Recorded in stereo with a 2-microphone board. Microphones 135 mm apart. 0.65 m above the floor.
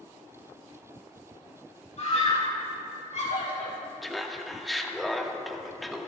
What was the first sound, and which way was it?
A scream, 60° left (ahead or behind).